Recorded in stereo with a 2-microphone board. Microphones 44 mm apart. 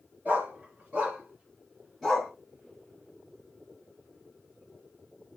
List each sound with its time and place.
0.2 s a dog barking: 45° right (ahead or behind), 3 m; by 2.3 s 5° left (ahead or behind), 2 m